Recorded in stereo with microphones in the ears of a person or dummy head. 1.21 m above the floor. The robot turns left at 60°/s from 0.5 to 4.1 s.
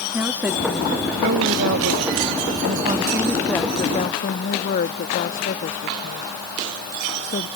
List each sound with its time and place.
0.1 s a woman speaking: 10° right; by 7.5 s 135° left